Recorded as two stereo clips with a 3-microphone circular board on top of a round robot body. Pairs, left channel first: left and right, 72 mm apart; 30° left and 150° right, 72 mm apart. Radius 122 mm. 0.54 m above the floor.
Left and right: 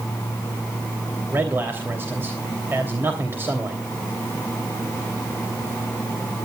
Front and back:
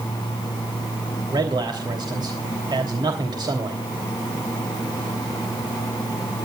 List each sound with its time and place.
1.3 s a man speaking: 150° right, 3 m